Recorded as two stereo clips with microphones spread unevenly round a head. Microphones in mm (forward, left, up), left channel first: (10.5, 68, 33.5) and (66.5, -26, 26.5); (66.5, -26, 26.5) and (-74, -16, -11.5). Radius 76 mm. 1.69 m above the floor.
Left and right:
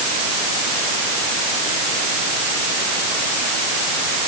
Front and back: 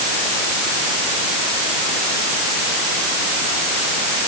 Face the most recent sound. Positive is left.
No sound to turn to.